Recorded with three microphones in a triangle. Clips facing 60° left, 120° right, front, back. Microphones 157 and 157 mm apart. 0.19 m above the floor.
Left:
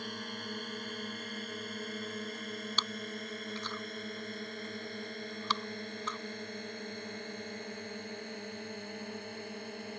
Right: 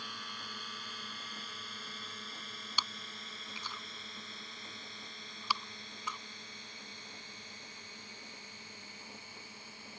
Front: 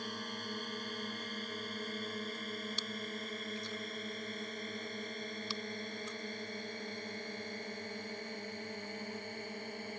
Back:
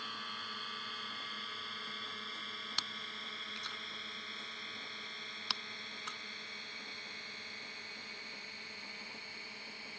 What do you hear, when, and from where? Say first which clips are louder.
0.0 s a drone: left 8 dB, front 7 dB; 35° left; by 10.0 s 40° left
2.8 s chewing: left 6 dB, front 8 dB; 160° left